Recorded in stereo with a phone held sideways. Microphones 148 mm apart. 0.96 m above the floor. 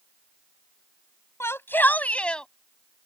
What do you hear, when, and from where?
1.4 s a shout: 20° left (ahead or behind); by 2.5 s 5° left (ahead or behind)